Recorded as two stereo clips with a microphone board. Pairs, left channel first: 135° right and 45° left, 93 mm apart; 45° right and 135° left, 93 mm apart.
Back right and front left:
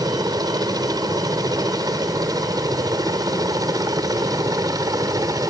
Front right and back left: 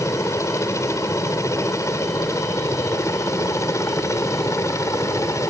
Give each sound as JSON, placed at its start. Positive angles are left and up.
{"t": 0.0, "sound": "a helicopter", "azimuth_deg": 10}